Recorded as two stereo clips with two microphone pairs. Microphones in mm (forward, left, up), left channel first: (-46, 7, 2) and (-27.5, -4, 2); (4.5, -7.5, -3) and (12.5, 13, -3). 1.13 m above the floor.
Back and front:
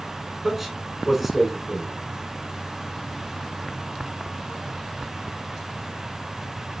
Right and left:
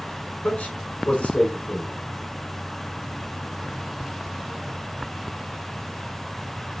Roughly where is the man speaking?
Right.